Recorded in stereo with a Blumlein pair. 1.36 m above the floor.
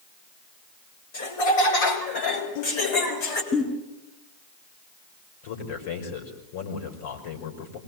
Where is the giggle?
25° left, 9.5 m.